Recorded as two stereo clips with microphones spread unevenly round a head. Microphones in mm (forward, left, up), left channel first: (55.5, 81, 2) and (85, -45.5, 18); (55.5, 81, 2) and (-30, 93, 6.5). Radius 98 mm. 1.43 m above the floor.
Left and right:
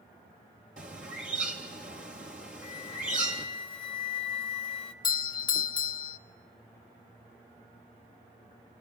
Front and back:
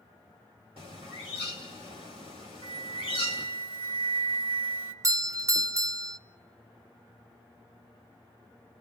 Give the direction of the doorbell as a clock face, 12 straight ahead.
8 o'clock.